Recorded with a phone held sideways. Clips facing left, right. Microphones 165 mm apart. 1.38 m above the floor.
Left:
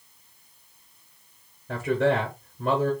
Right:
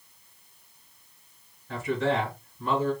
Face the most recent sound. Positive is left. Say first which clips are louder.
# left 4 dB
turn(degrees=60)  # may be behind; listen again after turning